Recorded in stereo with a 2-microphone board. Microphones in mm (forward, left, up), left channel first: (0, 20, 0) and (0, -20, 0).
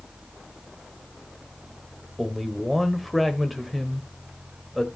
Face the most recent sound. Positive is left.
turn(degrees=0)  # may be behind; listen again after turning